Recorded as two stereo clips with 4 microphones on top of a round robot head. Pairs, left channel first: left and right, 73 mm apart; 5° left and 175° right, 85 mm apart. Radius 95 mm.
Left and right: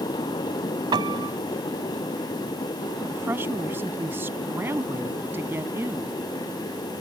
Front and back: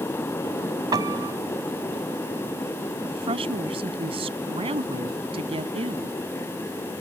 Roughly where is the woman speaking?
Behind right.